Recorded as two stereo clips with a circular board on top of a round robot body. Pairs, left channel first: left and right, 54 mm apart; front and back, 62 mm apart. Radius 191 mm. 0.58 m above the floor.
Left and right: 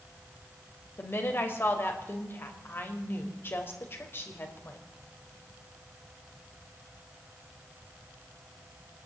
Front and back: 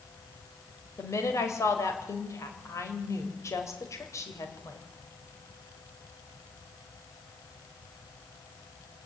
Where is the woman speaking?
40° left, 4 m.